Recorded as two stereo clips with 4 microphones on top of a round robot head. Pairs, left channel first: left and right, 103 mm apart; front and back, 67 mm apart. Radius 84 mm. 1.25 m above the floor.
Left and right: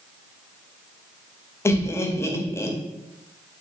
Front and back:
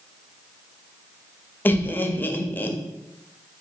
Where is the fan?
I don't hear a fan.